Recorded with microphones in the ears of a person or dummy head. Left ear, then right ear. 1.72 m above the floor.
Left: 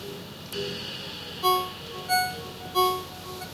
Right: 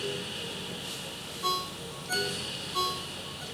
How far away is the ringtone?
About 1.1 m.